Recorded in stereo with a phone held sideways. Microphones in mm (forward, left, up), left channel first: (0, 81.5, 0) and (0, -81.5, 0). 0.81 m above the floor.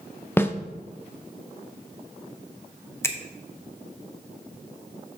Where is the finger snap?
15° left (ahead or behind), 0.7 m.